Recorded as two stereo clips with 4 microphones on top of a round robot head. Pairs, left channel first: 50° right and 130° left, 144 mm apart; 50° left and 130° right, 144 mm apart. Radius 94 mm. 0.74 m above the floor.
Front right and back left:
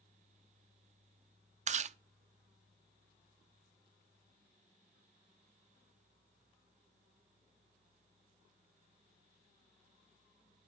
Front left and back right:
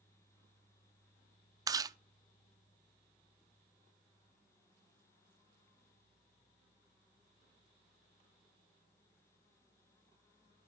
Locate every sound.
1.7 s chewing: 165° left, 0.6 m